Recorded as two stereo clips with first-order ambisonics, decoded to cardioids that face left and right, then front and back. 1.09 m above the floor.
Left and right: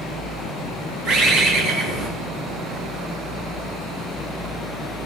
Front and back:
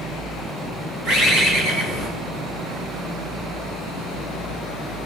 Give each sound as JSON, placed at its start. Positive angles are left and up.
{"t": 1.1, "sound": "a bird", "azimuth_deg": -140, "distance_m": 2.5}